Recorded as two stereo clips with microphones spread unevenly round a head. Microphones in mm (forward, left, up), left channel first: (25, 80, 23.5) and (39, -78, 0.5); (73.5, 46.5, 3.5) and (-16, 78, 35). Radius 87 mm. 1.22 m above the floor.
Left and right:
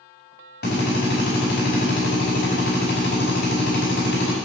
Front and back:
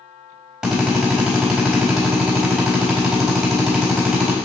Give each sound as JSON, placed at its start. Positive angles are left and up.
{"t": 0.6, "sound": "a drill", "azimuth_deg": 80, "distance_m": 4.5}